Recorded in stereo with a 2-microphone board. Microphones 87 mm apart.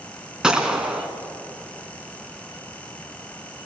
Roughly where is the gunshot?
Centre.